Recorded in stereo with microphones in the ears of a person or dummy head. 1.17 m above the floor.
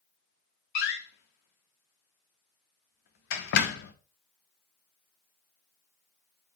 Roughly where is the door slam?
Left.